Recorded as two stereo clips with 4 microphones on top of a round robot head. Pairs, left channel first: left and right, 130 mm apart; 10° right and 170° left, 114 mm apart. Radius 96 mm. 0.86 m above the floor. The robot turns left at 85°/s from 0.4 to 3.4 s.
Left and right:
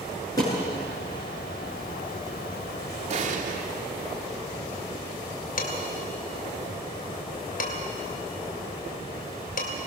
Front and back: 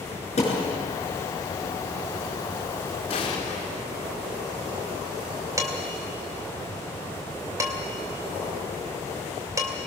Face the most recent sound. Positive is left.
turn(degrees=105)